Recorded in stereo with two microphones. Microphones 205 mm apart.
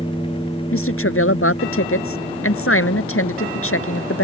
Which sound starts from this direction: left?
A woman speaking, at 0.7 s.